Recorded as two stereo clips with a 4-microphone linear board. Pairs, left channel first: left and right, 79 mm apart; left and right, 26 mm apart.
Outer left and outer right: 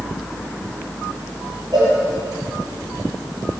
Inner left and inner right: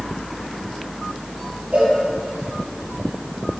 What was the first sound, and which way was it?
A cowbell, 65° right (ahead or behind).